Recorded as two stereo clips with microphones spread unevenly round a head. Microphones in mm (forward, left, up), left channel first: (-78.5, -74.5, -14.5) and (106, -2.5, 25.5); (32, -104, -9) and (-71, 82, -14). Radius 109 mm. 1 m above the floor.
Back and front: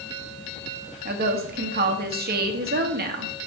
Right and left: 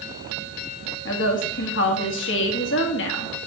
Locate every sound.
1.1 s a woman speaking: 25° right, 1.5 m